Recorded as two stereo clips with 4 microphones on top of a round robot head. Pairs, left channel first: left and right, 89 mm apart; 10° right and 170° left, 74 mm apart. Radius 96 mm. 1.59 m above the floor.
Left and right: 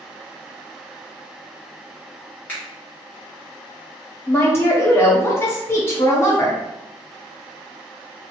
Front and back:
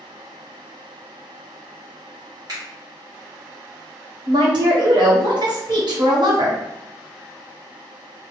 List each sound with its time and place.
2.5 s a finger snap: 155° left, 0.8 m
4.3 s a woman speaking: 155° left, 1.0 m